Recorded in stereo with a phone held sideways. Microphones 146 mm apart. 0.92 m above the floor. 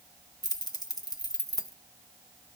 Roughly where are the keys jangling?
Left.